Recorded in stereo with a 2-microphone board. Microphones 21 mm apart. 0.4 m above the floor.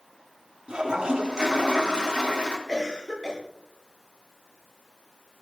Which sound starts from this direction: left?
A cough, at 2.7 s.